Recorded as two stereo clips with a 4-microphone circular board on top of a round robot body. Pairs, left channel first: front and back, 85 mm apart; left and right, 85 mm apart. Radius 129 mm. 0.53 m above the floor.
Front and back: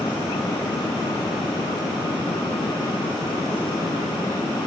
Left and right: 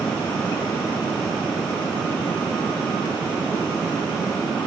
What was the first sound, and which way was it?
Only background noise.